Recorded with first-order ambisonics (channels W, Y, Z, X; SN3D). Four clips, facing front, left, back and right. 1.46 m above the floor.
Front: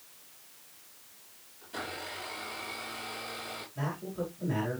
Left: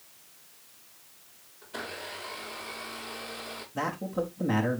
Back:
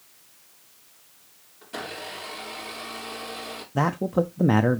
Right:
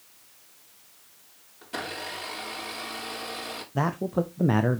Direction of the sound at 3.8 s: 155° right.